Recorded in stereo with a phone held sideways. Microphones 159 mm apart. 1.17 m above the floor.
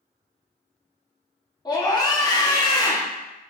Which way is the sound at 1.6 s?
25° left (ahead or behind).